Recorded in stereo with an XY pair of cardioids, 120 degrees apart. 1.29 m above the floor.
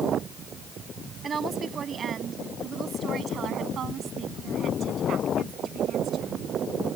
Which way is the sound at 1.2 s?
35° right.